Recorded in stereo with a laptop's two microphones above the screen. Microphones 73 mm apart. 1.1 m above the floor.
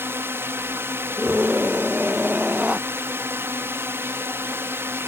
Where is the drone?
35° right (ahead or behind).